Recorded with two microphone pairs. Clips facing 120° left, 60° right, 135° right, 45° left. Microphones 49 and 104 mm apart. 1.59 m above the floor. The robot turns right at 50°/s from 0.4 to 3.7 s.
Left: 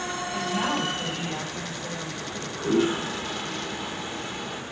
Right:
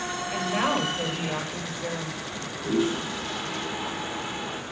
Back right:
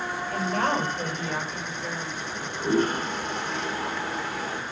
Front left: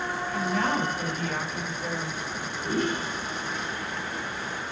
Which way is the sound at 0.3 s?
100° right.